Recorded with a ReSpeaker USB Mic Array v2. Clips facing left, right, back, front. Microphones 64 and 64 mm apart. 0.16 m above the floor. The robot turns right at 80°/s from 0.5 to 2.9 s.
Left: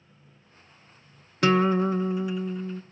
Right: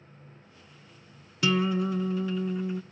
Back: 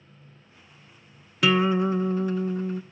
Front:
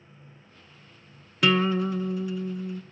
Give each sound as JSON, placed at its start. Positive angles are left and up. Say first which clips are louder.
{"t": 1.4, "sound": "a guitar", "louder": "left 5 dB, back 2 dB", "azimuth_deg": 90, "distance_m": 0.5}